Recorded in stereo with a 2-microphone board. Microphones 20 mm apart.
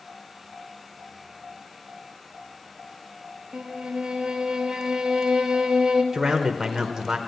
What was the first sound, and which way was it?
A violin, 60° right (ahead or behind).